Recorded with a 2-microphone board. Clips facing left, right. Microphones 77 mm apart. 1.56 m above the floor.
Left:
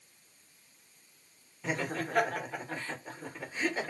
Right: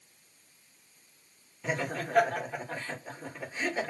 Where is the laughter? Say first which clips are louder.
Right 1 dB; centre (ahead or behind), 1.5 m.